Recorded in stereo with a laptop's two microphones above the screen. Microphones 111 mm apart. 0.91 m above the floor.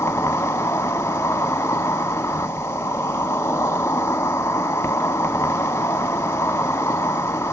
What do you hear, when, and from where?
0.0 s an insect: 20° left (ahead or behind), 1.4 m